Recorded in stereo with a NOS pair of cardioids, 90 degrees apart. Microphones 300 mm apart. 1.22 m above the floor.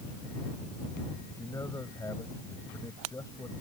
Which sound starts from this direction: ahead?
A man speaking, at 1.3 s.